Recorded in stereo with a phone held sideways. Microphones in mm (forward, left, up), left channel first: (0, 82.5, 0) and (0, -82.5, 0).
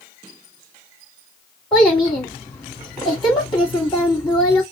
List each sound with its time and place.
1.7 s a child speaking: 25° left (ahead or behind), 1.8 m